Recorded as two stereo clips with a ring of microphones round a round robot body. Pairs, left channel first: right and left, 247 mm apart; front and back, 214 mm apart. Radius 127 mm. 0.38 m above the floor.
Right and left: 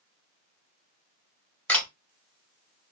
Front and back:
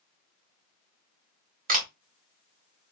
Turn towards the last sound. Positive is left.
turn(degrees=-170)